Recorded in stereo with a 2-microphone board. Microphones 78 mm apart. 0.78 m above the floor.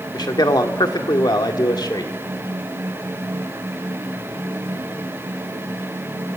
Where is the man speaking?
65° left (ahead or behind), 1.9 m.